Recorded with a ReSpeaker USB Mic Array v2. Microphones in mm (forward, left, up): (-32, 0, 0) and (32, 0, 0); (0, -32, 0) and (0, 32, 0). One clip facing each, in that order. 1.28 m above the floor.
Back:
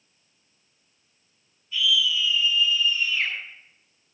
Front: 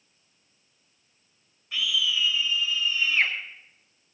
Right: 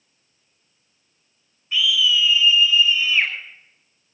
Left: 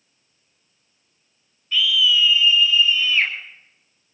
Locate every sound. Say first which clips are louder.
1.7 s a scream: back 3 dB, left 1 dB; 15° right, 5 m